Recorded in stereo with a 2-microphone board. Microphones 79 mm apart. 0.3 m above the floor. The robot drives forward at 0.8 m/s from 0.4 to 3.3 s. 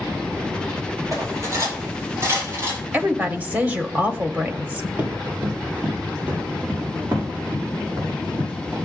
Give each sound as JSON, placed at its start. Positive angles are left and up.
{"t": 1.1, "sound": "cutlery clinking", "side_deg": -45, "distance_m": 4.5}
{"t": 2.9, "sound": "a woman speaking", "side_deg": -20, "distance_m": 0.9}
{"t": 5.0, "sound": "running footsteps", "side_deg": -15, "distance_m": 4.5}